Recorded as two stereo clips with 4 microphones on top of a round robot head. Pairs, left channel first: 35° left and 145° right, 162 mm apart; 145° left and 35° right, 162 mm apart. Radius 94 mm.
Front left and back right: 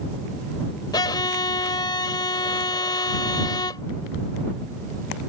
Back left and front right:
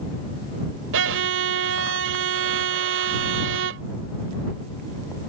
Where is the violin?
35° right.